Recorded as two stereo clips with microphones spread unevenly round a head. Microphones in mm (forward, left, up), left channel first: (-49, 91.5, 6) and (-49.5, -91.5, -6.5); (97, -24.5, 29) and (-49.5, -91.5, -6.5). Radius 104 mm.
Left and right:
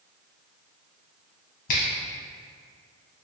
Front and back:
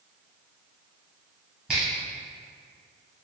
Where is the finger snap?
105° left, 0.7 m.